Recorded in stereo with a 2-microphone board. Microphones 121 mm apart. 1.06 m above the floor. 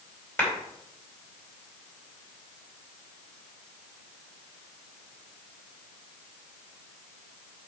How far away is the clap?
About 4.5 m.